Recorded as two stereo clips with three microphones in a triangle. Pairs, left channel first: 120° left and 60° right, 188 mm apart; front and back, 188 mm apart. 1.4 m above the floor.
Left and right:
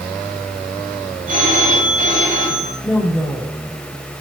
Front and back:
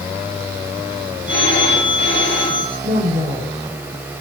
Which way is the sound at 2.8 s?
150° right.